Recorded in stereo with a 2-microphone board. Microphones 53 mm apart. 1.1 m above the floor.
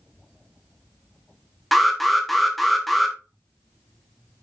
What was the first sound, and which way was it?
An alarm, centre (ahead or behind).